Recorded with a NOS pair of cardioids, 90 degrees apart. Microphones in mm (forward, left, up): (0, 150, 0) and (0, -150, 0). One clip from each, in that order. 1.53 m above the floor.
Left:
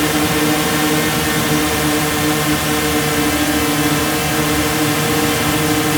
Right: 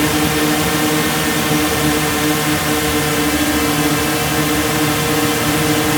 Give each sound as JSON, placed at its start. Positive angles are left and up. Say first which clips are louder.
{"t": 0.0, "sound": "a drone", "louder": "even", "azimuth_deg": 0}